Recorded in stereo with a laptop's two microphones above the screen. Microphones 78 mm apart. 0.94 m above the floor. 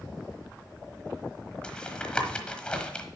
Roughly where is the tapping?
Centre.